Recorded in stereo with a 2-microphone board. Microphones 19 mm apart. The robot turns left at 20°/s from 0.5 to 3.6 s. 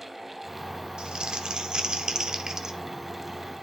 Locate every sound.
1.0 s crumpling: 100° right, 0.5 m; by 2.8 s 140° right, 0.5 m